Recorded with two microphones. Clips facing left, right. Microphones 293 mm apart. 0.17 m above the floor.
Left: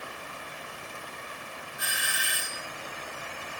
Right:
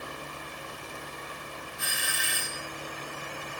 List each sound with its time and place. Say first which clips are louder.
1.8 s a doorbell: right 1 dB; 30° right (ahead or behind), 2 m